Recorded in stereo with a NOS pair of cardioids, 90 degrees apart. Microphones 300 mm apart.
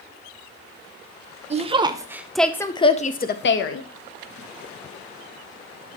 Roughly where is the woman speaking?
Ahead right.